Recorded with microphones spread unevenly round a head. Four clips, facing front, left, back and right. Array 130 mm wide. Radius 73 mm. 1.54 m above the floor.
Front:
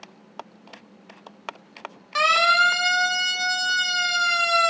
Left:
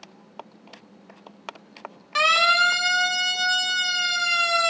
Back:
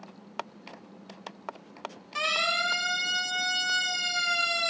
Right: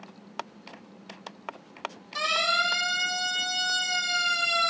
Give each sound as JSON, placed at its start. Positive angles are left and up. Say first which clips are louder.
{"t": 2.1, "sound": "a siren", "louder": "left 8 dB, front 11 dB", "azimuth_deg": 30, "distance_m": 9.0}